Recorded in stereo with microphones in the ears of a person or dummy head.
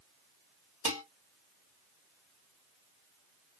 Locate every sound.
0.8 s dishes clattering: 35° right (ahead or behind), 1.5 m